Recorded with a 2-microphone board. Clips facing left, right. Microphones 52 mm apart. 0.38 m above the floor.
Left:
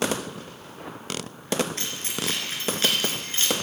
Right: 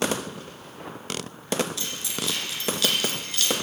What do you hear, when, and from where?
1.8 s keys jangling: 45° left (ahead or behind), 3.5 m; by 3.6 s 30° left (ahead or behind), 3 m